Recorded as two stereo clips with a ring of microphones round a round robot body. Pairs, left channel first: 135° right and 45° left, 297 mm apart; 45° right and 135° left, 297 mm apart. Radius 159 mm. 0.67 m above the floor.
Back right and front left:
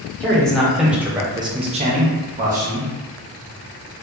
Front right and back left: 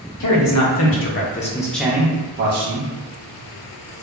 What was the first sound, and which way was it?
A man speaking, 50° right.